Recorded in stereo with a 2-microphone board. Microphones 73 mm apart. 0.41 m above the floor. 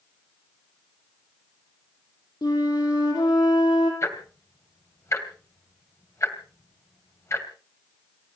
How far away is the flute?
About 5 m.